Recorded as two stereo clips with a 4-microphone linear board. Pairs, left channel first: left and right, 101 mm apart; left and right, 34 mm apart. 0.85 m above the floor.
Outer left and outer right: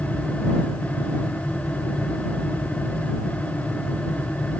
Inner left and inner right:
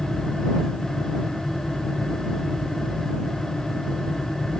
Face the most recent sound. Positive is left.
No sound to turn to.